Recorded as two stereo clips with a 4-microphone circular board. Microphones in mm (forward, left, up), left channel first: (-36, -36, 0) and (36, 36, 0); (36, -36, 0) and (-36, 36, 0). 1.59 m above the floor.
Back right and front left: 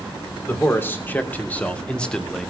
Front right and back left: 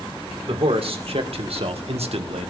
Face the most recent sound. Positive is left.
turn(degrees=140)